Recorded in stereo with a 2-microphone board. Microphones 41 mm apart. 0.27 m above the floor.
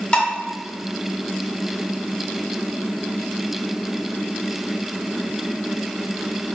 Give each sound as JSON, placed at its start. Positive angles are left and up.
{"t": 0.1, "sound": "dishes clattering", "side_deg": 25, "distance_m": 0.7}